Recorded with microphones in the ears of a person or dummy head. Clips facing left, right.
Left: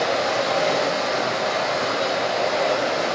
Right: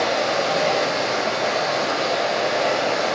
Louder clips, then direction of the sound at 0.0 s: Right 1 dB; 45° right (ahead or behind).